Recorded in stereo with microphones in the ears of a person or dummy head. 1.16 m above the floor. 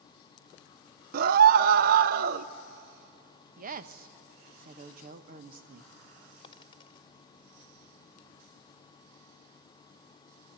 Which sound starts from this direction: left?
A dropped coin, at 6.4 s.